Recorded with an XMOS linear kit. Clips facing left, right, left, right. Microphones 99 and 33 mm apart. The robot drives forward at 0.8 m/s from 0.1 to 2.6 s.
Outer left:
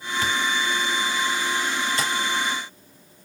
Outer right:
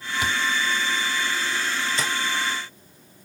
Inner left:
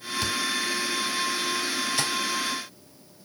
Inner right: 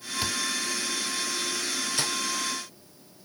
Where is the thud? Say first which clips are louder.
Even, inner left 2 dB; 15° right (ahead or behind), 0.7 m.